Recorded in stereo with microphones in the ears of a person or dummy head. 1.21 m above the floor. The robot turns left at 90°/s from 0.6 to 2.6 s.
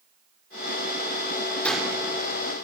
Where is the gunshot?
10° left, 3.5 m; by 2.0 s 25° right, 3.5 m.